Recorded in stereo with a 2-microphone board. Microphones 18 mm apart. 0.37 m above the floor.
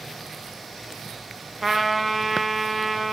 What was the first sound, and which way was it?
A trumpet, 15° right (ahead or behind).